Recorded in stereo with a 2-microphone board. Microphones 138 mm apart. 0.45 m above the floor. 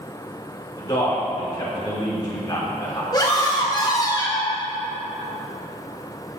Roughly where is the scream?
Left.